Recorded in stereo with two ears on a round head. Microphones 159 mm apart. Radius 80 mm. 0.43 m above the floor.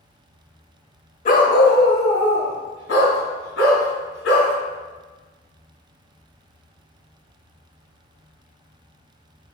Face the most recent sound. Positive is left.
turn(degrees=75)  # may be behind; listen again after turning